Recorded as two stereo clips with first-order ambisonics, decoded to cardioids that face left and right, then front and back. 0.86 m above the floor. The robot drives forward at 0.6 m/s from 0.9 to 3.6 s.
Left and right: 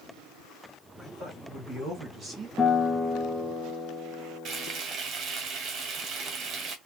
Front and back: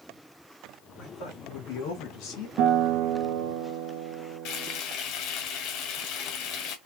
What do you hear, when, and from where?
1.0 s a man speaking: 10° right, 3.5 m; by 2.5 s 15° right, 2.5 m
2.6 s a guitar: 165° left, 1.0 m; by 4.8 s 175° left, 1.5 m
4.5 s frying: 35° right, 1.5 m